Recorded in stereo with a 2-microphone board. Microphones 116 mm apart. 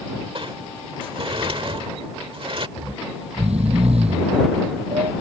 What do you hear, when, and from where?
0.3 s a sliding door: 50° right (ahead or behind)
2.8 s snoring: 65° right (ahead or behind)